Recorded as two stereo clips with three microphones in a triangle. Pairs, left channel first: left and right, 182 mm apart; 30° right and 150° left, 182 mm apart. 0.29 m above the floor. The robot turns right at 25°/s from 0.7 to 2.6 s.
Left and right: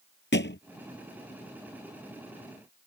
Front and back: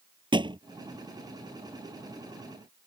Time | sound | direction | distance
0.3 | a thud | 85° left | ?